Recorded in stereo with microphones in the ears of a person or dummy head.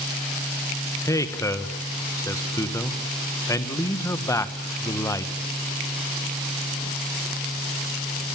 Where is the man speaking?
15° left (ahead or behind), 1.5 m.